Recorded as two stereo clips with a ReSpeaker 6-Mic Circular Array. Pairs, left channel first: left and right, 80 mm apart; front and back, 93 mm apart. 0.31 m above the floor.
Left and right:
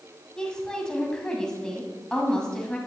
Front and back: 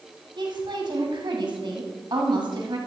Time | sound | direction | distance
0.4 | a woman speaking | 170° left | 1.9 m